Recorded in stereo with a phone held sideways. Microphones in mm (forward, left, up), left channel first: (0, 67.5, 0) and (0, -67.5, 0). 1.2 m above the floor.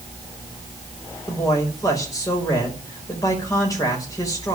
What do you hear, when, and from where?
1.3 s a man speaking: 25° left (ahead or behind), 5 m